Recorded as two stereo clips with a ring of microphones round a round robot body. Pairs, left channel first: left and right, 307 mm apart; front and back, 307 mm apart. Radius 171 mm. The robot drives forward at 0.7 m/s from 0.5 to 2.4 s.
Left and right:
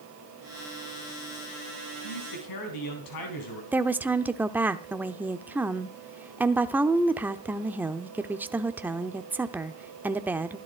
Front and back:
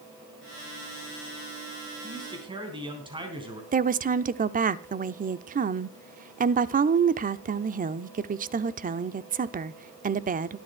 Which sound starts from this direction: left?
A man speaking, at 2.0 s.